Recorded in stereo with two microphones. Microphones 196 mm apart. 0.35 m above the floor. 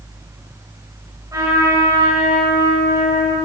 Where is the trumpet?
15° right (ahead or behind), 1.9 m.